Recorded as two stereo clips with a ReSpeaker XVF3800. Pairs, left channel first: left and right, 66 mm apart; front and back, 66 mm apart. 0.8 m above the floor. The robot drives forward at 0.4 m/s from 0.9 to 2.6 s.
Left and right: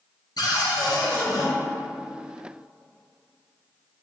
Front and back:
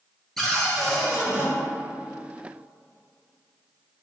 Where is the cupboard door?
85° left, 0.5 m; by 1.5 s 110° left, 0.5 m.